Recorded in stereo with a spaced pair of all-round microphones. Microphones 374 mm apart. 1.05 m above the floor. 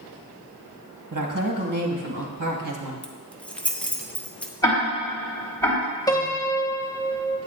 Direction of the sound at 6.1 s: 10° left (ahead or behind).